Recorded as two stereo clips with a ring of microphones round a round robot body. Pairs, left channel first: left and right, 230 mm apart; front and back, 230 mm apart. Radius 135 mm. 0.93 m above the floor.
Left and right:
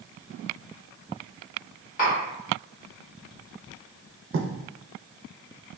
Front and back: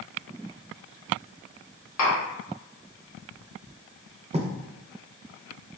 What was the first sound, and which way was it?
Tapping, 30° left.